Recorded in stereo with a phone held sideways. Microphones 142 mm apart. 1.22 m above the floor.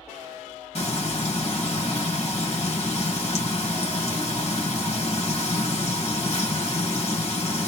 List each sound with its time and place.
0.8 s frying: 45° left (ahead or behind), 1.8 m